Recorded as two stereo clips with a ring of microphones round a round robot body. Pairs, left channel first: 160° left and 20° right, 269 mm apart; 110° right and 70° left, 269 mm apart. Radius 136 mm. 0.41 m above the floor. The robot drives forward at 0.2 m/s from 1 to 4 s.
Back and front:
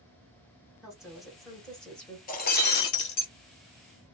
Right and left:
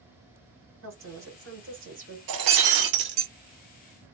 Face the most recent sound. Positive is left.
turn(degrees=125)